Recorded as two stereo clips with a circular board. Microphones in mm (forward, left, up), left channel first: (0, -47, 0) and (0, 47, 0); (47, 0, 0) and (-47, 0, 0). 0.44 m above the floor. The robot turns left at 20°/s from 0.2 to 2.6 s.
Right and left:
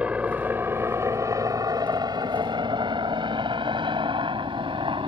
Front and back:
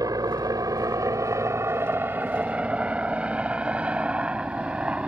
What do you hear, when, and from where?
0.0 s a helicopter: 160° left; by 5.1 s 100° left